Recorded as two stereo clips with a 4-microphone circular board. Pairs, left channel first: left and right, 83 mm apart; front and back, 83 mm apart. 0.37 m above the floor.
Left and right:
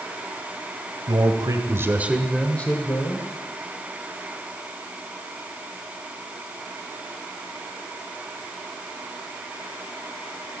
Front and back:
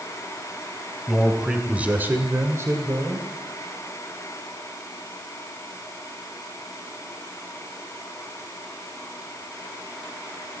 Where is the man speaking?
95° right, 2 m; by 3.3 s 130° left, 2 m.